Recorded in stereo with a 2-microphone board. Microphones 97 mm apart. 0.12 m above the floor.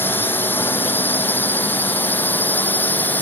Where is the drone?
20° left (ahead or behind).